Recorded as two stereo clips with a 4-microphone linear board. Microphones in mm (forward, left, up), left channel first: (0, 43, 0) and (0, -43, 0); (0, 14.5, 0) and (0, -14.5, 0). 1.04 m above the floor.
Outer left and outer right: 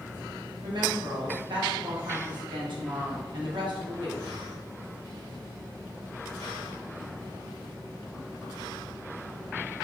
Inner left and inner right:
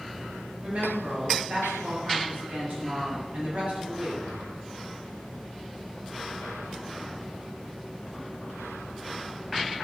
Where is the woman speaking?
70° right (ahead or behind), 0.9 m.